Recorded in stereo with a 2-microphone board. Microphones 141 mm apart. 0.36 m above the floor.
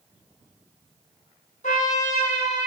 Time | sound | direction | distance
1.6 | a trumpet | 65° left (ahead or behind) | 1.6 m